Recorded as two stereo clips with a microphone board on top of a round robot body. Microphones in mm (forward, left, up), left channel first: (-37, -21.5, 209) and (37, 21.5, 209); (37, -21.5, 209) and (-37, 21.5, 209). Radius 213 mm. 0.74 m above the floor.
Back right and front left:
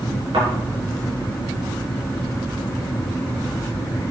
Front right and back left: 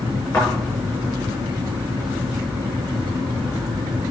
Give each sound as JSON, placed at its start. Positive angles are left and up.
{"t": 0.3, "sound": "a thud", "azimuth_deg": 35, "distance_m": 5.5}